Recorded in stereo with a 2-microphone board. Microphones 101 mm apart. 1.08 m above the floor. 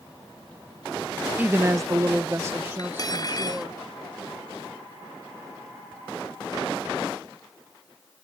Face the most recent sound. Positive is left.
turn(degrees=40)  # may be behind; listen again after turning